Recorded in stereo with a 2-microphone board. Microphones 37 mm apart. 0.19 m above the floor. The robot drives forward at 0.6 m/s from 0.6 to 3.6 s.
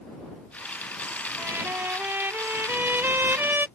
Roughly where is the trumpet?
Right.